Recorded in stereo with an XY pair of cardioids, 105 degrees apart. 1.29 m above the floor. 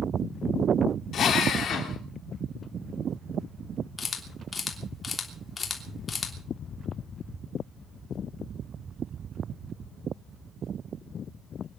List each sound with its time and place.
1.1 s a drill: 55° left, 3 m
4.0 s a camera shutter: 30° left, 3 m